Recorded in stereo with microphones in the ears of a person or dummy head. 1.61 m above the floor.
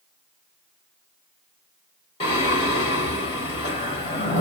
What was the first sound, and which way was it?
Singing, 25° left (ahead or behind).